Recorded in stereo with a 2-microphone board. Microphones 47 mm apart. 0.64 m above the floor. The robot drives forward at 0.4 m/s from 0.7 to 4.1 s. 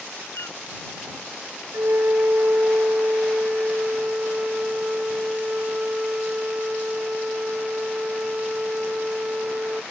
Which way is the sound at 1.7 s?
75° right (ahead or behind).